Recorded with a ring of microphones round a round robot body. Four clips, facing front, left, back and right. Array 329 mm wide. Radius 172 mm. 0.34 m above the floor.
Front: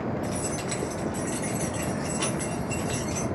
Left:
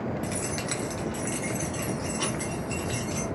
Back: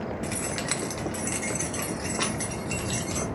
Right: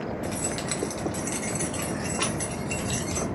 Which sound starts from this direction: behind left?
Keys jangling, at 0.2 s.